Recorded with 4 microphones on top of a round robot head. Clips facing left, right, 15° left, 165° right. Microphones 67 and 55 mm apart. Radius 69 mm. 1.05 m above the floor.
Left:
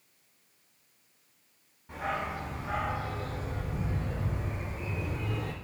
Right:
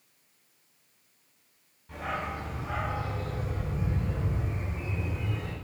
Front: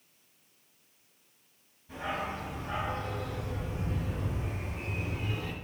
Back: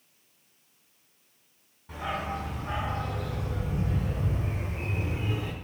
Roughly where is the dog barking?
Behind.